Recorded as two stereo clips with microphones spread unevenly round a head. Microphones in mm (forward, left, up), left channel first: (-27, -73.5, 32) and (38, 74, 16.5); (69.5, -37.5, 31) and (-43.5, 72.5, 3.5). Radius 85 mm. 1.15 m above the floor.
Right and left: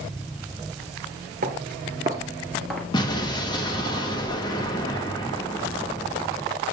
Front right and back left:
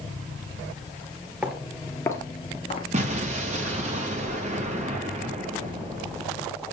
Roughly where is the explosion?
Behind.